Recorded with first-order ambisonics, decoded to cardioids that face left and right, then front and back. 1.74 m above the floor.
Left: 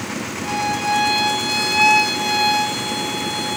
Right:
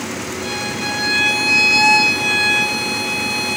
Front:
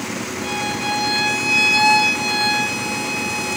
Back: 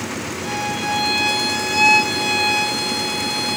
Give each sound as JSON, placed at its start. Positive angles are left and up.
{"t": 0.4, "sound": "a violin", "azimuth_deg": -80, "distance_m": 1.3}